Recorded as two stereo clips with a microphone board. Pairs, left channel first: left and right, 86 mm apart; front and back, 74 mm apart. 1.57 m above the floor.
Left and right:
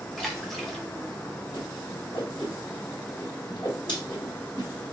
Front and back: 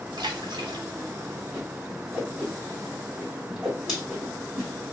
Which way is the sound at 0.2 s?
Straight behind.